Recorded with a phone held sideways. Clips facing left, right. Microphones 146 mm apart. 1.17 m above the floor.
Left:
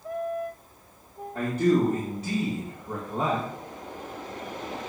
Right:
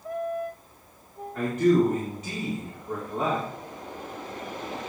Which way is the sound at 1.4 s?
35° left (ahead or behind).